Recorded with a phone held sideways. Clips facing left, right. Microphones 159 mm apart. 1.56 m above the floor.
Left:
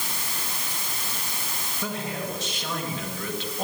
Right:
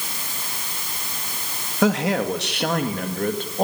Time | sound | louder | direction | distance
1.8 | a man speaking | right 12 dB | 75° right (ahead or behind) | 2.5 m